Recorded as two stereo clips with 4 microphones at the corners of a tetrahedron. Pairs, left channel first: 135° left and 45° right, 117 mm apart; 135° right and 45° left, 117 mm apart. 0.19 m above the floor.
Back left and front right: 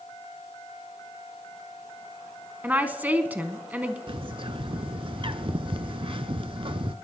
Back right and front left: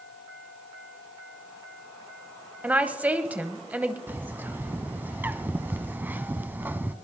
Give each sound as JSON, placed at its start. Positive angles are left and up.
{"t": 2.6, "sound": "a woman speaking", "azimuth_deg": -5, "distance_m": 1.0}
{"t": 4.1, "sound": "a bird", "azimuth_deg": -25, "distance_m": 0.7}